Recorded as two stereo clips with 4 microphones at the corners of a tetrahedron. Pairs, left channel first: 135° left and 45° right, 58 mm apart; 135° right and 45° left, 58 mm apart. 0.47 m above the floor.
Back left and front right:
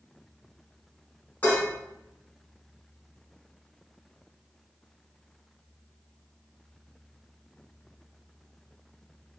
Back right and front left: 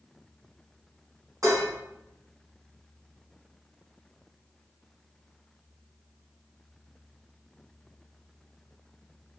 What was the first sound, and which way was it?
Dishes clattering, 70° left.